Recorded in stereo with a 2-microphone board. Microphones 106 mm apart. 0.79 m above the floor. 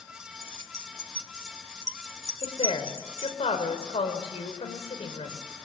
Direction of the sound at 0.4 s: 25° right (ahead or behind).